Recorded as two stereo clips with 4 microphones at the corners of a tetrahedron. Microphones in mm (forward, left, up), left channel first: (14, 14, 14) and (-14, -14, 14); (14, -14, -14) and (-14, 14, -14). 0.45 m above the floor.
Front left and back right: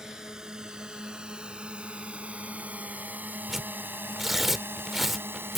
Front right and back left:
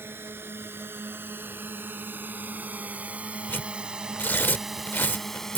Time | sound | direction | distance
0.0 | a drone | 150° left | ?
3.5 | tearing paper | 50° right | ?